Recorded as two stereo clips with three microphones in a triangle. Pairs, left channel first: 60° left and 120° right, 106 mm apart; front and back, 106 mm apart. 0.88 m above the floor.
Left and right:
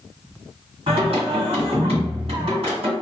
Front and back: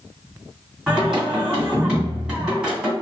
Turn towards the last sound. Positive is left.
turn(degrees=-100)